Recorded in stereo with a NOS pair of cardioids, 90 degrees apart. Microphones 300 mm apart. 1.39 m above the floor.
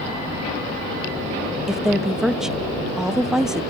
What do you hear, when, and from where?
1.7 s a woman speaking: straight ahead, 1.4 m